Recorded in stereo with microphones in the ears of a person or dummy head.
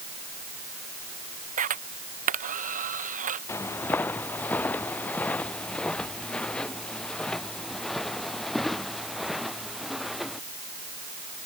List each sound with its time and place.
1.6 s a camera shutter: 45° right (ahead or behind)
3.5 s footsteps: 15° left (ahead or behind); by 10.4 s centre (ahead or behind)